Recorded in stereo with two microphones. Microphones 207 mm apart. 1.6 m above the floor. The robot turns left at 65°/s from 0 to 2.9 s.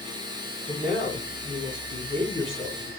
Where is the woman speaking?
140° left, 1.8 m; by 2.9 s straight ahead, 1.8 m.